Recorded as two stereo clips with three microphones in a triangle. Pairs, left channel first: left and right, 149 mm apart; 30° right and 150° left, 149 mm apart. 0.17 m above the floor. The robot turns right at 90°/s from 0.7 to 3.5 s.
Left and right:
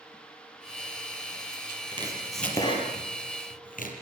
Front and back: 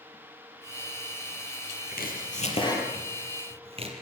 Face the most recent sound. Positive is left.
turn(degrees=105)